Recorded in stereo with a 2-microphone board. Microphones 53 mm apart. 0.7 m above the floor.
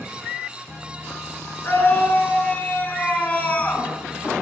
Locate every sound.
1.6 s a scream: 40° left (ahead or behind), 9.5 m; by 3.9 s 25° left (ahead or behind), 7.5 m